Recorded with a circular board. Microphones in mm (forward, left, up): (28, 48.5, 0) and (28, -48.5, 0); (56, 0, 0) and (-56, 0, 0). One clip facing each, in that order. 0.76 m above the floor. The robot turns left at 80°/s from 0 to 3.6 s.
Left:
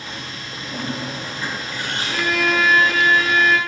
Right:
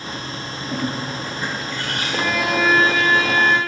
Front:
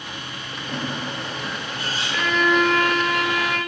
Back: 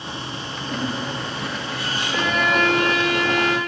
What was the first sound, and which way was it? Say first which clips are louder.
A bird: right 2 dB, back 2 dB; 110° right.